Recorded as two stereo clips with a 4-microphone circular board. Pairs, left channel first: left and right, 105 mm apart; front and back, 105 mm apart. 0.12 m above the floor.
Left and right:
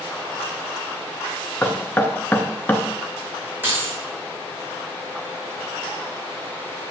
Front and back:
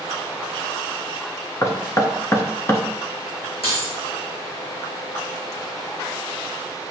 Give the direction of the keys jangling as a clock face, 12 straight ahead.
1 o'clock.